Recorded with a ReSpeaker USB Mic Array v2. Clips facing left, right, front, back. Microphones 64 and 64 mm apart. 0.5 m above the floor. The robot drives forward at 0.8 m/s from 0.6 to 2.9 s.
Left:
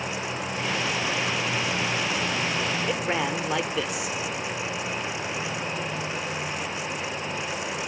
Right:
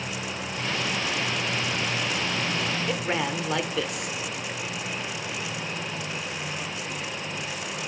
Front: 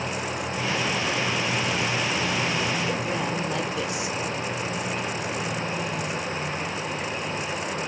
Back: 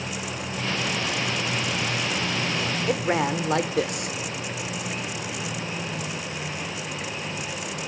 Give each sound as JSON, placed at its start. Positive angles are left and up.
{"t": 2.9, "sound": "a man speaking", "azimuth_deg": 175, "distance_m": 1.3}